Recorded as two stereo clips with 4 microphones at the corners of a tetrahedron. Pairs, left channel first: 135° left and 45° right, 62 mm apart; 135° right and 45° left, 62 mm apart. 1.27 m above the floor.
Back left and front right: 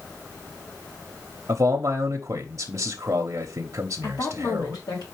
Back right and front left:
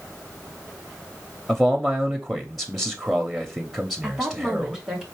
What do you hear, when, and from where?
1.5 s a man speaking: 40° right, 0.6 m
4.0 s a woman speaking: 125° left, 1.5 m